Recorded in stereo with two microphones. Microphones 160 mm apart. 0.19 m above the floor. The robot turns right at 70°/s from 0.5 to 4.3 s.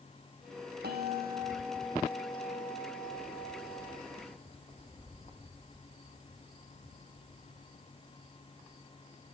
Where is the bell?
100° right, 4.5 m; by 5.3 s 145° left, 4.5 m.